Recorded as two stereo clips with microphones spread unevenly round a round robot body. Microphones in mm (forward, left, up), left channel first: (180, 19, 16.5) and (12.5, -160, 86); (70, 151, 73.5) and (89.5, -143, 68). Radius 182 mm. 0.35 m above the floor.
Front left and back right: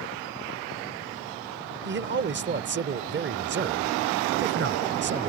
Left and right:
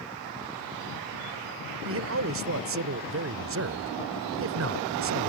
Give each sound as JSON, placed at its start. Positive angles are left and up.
{"t": 1.9, "sound": "a man speaking", "azimuth_deg": -90}